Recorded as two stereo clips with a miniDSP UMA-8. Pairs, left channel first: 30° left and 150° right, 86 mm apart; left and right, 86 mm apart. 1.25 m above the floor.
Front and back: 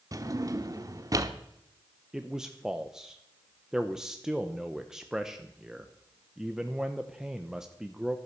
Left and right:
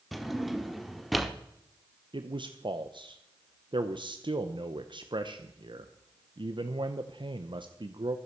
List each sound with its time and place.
0.1 s a drawer: straight behind, 1.0 m
2.1 s a man speaking: 65° right, 0.8 m